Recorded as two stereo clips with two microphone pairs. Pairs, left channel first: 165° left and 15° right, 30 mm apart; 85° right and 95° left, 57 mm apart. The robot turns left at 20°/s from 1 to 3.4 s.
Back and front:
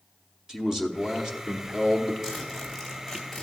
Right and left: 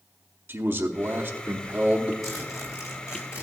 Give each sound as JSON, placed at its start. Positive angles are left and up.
{"t": 0.5, "sound": "a man speaking", "azimuth_deg": 60, "distance_m": 0.8}
{"t": 2.2, "sound": "a zipper", "azimuth_deg": -95, "distance_m": 3.0}